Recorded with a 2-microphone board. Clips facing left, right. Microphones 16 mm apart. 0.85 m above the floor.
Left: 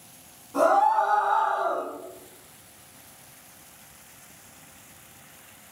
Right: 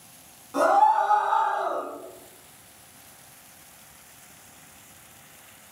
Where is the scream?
50° right (ahead or behind), 1.5 m; by 1.9 s 35° right (ahead or behind), 1.0 m.